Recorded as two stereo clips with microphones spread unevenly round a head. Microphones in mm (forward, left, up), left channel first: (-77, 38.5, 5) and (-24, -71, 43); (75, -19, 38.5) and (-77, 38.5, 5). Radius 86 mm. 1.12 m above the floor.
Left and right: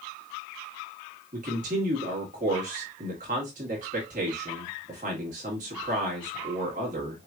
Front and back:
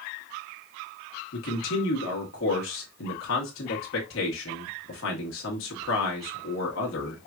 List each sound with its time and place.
1.3 s a man speaking: 15° right, 1.7 m